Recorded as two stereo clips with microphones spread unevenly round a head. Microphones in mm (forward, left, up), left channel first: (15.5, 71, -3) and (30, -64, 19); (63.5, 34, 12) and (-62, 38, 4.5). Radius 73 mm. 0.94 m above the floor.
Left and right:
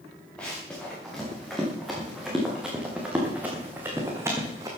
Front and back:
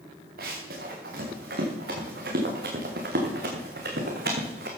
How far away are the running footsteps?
About 5.5 m.